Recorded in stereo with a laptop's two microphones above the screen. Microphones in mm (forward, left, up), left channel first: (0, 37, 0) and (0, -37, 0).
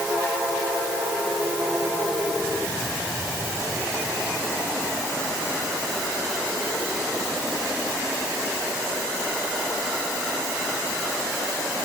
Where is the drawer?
No drawer in this recording.